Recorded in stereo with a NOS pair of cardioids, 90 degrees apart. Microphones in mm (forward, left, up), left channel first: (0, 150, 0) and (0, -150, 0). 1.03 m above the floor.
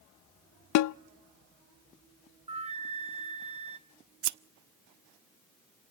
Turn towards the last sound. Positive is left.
turn(degrees=-60)